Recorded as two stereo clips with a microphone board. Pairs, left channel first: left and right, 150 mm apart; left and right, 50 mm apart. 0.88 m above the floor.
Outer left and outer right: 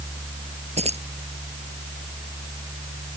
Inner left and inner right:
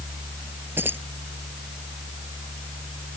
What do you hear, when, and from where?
0.8 s keys jangling: 45° right (ahead or behind)